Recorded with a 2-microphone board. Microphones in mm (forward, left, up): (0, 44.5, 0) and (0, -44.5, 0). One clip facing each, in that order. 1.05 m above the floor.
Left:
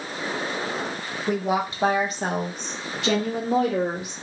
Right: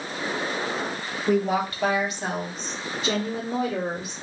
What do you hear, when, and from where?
1.3 s a woman speaking: centre (ahead or behind), 0.8 m; by 4.1 s 85° left, 1.6 m